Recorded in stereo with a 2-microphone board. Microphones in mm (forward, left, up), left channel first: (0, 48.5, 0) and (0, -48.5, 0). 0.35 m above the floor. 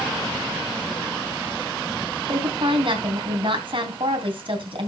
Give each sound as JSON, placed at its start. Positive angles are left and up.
{"t": 2.3, "sound": "a woman speaking", "side_deg": -65, "distance_m": 3.0}